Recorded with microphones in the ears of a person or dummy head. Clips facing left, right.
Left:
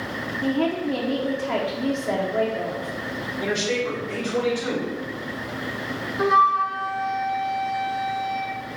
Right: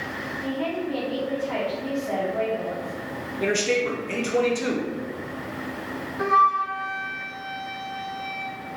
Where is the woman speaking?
75° left (ahead or behind), 0.6 m.